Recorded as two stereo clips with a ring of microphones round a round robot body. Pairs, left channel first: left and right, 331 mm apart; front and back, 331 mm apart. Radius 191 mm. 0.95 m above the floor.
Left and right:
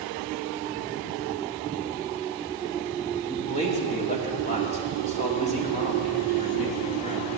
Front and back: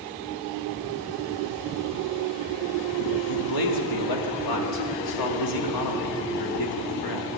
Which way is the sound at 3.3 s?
20° left.